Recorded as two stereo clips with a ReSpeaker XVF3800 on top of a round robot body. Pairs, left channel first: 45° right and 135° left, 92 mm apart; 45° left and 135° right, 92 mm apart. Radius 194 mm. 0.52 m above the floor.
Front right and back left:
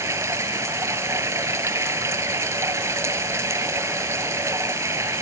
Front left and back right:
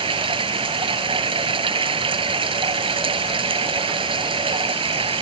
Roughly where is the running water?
Behind.